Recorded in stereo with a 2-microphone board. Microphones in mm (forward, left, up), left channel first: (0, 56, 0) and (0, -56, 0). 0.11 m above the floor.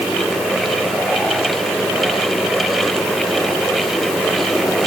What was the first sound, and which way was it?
Only background noise.